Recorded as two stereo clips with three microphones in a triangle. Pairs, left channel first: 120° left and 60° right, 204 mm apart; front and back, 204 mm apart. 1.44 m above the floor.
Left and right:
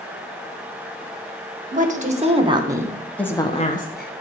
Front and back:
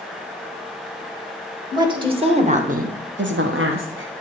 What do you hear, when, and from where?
1.7 s a woman speaking: 110° right, 2 m; by 4.1 s 155° left, 1.3 m